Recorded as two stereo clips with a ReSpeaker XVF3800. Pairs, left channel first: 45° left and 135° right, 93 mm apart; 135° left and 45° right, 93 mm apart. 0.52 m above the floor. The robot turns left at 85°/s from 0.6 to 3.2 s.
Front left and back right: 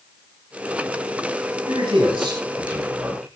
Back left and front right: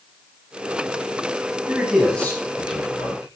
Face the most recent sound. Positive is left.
turn(degrees=125)